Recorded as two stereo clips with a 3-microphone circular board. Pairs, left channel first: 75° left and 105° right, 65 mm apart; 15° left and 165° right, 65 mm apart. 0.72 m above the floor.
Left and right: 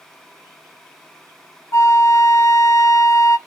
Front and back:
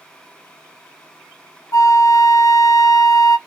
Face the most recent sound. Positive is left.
turn(degrees=40)